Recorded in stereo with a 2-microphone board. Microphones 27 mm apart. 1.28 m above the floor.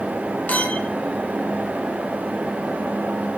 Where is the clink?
75° left (ahead or behind), 3 m.